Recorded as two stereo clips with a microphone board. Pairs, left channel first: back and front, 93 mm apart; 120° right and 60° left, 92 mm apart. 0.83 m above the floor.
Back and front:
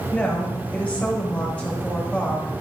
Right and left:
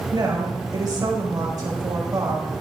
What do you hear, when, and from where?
0.1 s a woman speaking: 105° left, 4.5 m